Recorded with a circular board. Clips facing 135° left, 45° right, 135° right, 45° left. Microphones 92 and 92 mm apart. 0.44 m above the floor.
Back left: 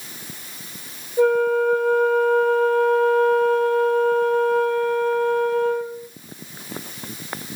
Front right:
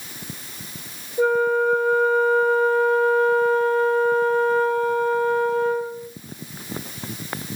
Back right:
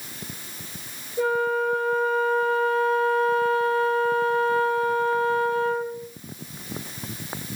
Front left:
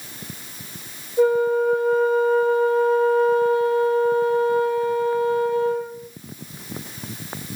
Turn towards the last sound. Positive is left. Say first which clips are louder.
# back left 2 dB, front left 6 dB
turn(degrees=110)